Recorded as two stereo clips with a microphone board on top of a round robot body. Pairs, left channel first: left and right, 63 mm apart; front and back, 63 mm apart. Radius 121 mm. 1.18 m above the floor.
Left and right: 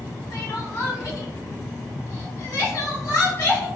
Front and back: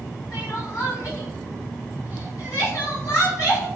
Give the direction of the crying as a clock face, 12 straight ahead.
11 o'clock.